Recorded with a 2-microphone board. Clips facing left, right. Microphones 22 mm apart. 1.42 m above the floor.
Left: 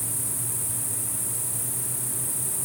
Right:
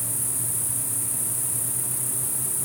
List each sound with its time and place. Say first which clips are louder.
0.0 s an insect: right 1 dB; 75° right (ahead or behind), 3.5 m